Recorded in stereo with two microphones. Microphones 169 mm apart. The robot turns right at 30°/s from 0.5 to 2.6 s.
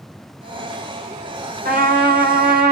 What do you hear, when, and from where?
1.6 s a trumpet: 65° right (ahead or behind), 2.5 m; by 2.7 s 70° right (ahead or behind), 2.5 m